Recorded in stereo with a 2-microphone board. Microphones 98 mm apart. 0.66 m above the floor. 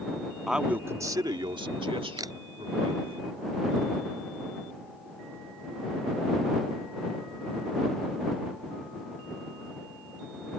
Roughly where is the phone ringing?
No phone ringing in this recording.